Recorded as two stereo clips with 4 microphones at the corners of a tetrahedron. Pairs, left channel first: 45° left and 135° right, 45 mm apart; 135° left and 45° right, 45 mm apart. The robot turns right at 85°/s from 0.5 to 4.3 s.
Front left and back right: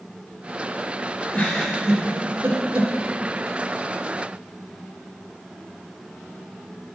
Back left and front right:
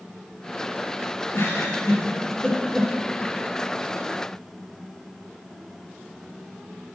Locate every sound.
1.3 s a giggle: 95° left, 3.5 m; by 2.9 s 125° right, 3.5 m